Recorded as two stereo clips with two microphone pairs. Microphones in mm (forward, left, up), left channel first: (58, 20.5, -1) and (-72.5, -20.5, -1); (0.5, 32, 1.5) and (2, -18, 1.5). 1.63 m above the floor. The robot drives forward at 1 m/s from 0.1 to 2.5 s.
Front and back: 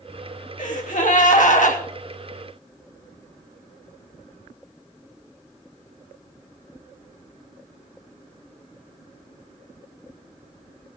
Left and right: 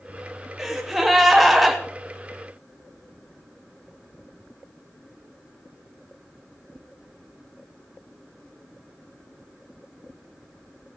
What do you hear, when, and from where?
0.6 s a gasp: straight ahead, 3 m; by 1.8 s 5° left, 1.7 m